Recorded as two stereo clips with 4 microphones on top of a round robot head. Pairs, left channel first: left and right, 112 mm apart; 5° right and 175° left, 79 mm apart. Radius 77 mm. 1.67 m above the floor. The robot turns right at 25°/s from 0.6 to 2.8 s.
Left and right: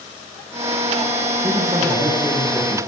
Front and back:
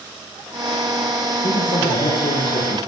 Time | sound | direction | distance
1.4 | a man speaking | 20° right | 1.9 m